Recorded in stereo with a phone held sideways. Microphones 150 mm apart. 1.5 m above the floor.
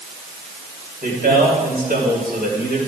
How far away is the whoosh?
No whoosh in this recording.